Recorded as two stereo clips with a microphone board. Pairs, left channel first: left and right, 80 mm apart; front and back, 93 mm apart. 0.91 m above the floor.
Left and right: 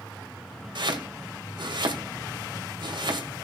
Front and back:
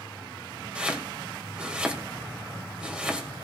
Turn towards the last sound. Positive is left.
turn(degrees=-100)